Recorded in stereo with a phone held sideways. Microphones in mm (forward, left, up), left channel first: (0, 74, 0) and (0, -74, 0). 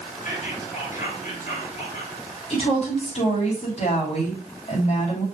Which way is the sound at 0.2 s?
65° left (ahead or behind).